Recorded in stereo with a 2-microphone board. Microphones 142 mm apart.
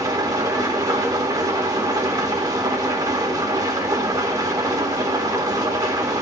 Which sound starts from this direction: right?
An engine running, at 0.0 s.